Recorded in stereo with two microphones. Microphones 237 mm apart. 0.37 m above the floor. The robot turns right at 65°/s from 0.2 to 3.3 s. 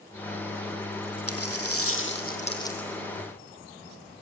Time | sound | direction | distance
1.3 | a dropped coin | 75° left | 2.0 m